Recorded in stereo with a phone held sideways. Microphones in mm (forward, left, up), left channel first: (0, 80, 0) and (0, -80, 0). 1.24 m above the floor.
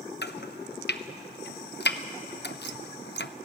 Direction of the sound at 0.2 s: 80° left.